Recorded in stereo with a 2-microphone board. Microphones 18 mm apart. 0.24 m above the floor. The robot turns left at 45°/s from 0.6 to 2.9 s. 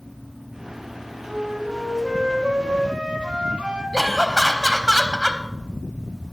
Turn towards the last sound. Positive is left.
turn(degrees=20)  # may be behind; listen again after turning